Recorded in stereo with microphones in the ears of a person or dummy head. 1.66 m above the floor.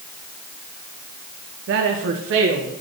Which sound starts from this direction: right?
A woman speaking, at 1.7 s.